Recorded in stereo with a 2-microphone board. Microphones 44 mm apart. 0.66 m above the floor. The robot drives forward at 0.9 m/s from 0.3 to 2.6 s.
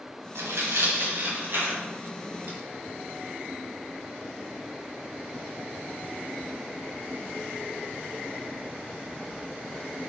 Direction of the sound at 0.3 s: 85° right.